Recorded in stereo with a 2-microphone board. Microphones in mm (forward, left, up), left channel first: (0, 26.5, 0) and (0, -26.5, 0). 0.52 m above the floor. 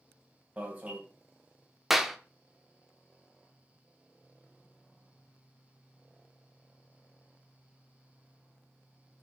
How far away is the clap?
About 0.9 m.